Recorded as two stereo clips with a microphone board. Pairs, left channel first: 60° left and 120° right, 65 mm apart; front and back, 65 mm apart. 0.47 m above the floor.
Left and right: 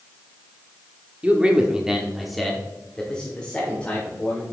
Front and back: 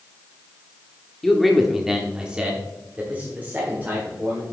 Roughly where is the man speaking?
Right.